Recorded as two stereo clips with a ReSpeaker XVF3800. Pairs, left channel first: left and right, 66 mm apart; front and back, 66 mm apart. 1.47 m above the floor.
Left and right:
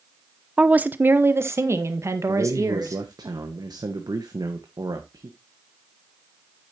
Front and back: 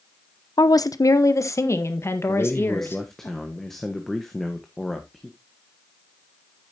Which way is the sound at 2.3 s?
85° right.